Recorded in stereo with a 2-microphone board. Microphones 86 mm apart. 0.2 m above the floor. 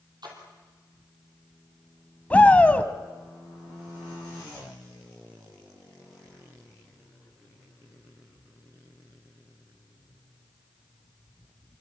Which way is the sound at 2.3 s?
20° left (ahead or behind).